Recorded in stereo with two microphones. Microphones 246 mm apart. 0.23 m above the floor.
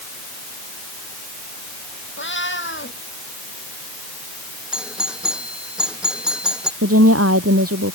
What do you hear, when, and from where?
2.2 s a cat meowing: 50° left (ahead or behind)
4.7 s a doorbell: 5° right (ahead or behind)
6.8 s a woman speaking: 70° right (ahead or behind)